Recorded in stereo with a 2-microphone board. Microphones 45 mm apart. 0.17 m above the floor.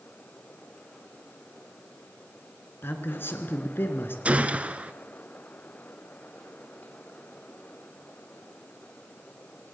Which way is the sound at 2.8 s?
55° left (ahead or behind).